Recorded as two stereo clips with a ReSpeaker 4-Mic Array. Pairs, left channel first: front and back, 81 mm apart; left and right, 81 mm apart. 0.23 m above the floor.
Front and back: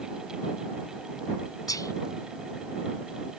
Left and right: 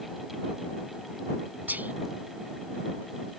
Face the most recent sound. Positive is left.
turn(degrees=-25)